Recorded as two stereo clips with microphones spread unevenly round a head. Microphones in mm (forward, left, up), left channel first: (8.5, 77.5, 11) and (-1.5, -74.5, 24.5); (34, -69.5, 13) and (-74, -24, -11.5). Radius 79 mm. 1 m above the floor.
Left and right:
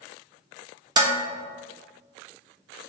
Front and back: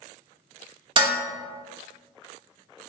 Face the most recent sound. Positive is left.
turn(degrees=-160)